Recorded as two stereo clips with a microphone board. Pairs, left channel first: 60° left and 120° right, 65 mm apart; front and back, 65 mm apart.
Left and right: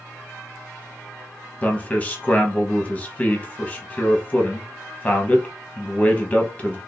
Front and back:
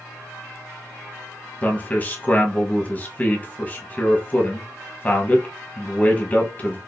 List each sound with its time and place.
1.6 s a man speaking: 25° left, 1.0 m